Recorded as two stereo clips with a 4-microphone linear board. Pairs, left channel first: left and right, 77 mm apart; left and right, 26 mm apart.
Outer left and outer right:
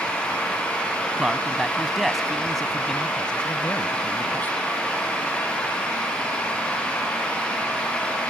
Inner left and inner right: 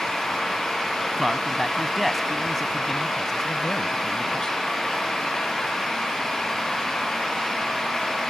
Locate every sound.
1.2 s a man speaking: 10° right (ahead or behind); by 4.5 s 25° left (ahead or behind)